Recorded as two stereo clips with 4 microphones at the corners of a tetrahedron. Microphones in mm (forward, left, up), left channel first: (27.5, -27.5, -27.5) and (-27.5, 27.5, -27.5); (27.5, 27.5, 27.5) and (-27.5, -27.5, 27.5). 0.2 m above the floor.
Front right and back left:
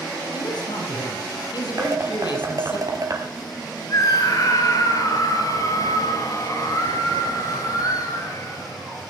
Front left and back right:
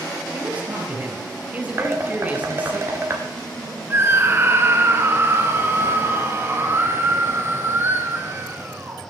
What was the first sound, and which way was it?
A man speaking, 60° right.